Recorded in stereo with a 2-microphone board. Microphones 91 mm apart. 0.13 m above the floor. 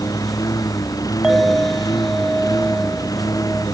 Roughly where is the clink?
Centre.